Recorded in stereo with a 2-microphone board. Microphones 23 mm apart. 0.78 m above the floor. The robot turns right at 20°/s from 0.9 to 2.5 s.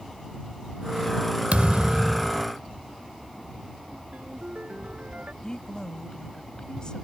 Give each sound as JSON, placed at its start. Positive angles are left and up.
{"t": 1.5, "sound": "a thud", "side_deg": -70}
{"t": 4.1, "sound": "a ringtone", "side_deg": -90}
{"t": 5.4, "sound": "a woman speaking", "side_deg": 35}